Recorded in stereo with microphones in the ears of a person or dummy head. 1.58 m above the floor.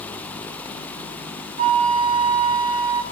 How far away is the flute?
About 1.7 m.